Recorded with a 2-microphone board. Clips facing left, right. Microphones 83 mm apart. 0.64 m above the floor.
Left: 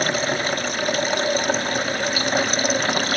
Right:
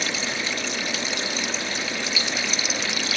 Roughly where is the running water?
Left.